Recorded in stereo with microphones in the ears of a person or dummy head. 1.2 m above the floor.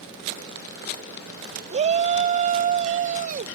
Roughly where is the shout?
Right.